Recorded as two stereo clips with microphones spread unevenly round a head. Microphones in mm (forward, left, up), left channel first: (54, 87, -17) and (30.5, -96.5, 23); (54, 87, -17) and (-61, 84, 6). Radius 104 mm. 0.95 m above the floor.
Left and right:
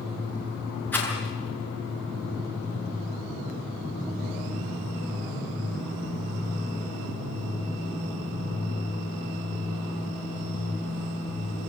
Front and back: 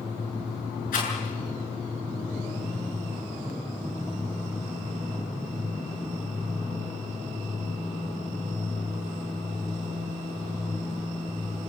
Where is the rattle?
Straight ahead, 7.5 m.